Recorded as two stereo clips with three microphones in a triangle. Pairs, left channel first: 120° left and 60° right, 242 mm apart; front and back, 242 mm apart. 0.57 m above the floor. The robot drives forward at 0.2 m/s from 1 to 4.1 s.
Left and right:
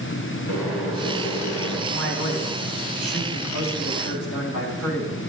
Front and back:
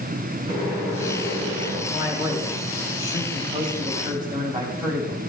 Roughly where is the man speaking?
Left.